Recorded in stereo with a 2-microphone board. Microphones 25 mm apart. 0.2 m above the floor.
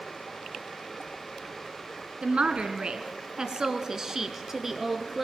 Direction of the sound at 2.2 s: 55° right (ahead or behind).